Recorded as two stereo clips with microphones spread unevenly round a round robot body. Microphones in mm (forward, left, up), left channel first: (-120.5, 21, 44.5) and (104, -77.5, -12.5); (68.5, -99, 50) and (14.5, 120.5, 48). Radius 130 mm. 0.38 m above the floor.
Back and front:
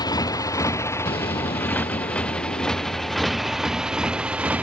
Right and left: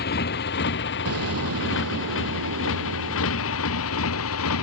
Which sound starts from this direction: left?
An explosion, at 1.1 s.